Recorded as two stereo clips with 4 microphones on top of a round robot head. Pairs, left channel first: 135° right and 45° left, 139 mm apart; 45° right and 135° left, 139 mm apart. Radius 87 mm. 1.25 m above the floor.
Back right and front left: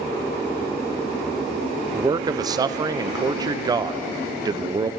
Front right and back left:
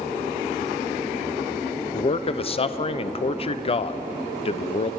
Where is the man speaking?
10° right, 0.6 m.